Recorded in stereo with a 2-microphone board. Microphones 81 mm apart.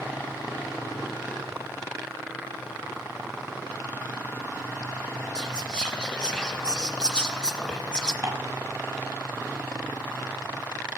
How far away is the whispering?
About 1.5 m.